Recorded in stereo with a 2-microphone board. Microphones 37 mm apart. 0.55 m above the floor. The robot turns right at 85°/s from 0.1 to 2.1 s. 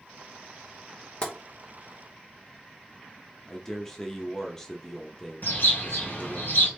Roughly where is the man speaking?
Centre.